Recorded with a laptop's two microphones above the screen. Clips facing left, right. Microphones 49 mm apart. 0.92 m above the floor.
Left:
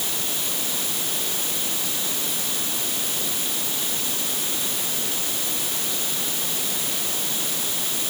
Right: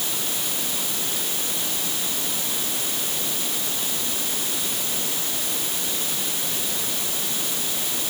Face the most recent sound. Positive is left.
No sound to turn to.